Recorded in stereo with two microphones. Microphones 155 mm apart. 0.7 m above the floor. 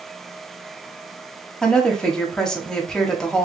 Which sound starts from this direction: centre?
A woman speaking, at 1.6 s.